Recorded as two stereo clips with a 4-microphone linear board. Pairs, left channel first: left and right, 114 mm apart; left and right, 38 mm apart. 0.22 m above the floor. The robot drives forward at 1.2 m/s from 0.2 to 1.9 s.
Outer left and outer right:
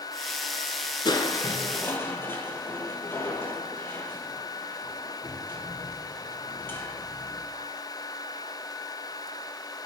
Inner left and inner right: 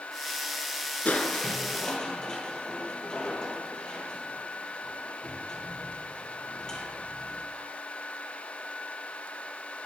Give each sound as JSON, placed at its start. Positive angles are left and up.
{"t": 1.1, "sound": "crushing", "side_deg": 40, "distance_m": 0.8}